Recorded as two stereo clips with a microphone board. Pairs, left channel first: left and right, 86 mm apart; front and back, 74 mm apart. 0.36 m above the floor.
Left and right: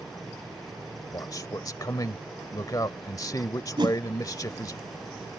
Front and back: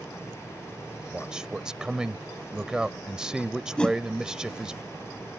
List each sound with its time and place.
1.1 s a man speaking: 105° left
3.8 s a whoosh: 80° right